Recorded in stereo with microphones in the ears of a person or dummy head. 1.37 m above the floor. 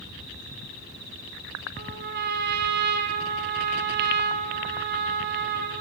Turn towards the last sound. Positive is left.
turn(degrees=-60)  # may be behind; listen again after turning